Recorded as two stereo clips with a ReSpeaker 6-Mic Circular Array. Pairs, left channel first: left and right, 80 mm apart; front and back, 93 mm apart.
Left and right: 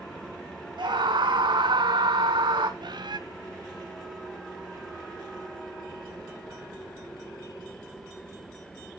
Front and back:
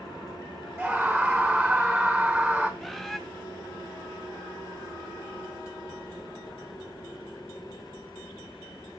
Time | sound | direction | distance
0.8 | a scream | 95° right | 1.2 m
2.8 | a bird | 90° right | 0.8 m